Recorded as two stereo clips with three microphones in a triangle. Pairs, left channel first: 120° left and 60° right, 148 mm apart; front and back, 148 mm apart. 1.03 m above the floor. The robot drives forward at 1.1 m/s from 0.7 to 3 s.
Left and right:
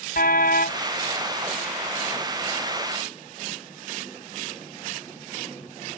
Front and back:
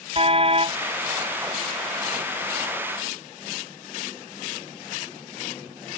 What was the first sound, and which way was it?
A car horn, 130° left.